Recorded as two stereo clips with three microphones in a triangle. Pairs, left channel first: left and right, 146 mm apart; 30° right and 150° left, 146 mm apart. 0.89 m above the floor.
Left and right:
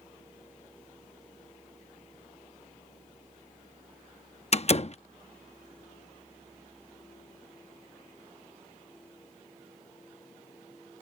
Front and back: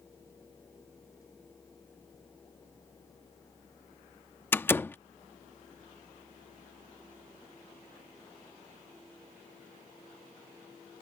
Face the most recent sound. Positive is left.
turn(degrees=45)